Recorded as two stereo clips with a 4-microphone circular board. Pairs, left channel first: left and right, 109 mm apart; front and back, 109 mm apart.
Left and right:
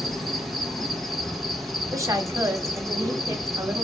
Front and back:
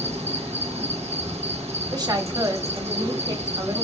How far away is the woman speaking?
About 0.9 m.